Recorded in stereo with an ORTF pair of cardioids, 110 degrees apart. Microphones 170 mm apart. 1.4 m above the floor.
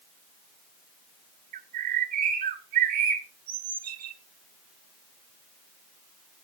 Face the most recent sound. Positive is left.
turn(degrees=-60)